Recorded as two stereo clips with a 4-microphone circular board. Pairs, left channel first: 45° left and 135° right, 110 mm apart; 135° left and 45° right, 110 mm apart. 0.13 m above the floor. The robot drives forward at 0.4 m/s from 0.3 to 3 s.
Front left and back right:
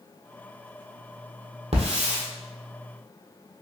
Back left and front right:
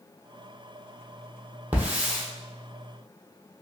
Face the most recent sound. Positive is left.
turn(degrees=-135)